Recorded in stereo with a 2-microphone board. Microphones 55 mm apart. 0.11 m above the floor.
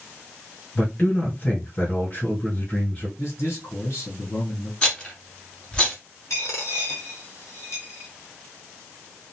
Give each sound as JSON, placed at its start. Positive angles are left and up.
{"t": 0.8, "sound": "a man speaking", "side_deg": 35, "distance_m": 1.9}
{"t": 3.2, "sound": "a man speaking", "side_deg": 55, "distance_m": 2.0}
{"t": 4.8, "sound": "a rattle", "side_deg": 20, "distance_m": 1.4}
{"t": 6.3, "sound": "a dropped coin", "side_deg": 70, "distance_m": 1.5}